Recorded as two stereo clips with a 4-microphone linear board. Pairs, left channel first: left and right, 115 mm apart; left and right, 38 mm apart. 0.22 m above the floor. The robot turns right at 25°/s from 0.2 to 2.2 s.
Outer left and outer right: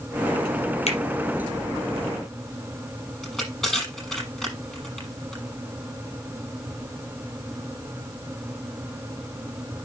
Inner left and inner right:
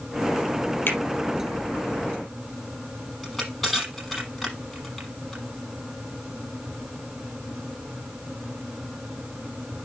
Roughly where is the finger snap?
Left.